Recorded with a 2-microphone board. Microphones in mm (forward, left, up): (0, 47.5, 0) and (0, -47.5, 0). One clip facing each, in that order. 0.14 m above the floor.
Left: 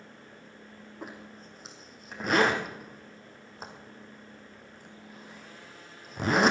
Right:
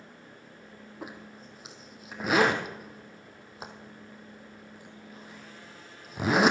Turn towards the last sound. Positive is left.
turn(degrees=-5)  # may be behind; listen again after turning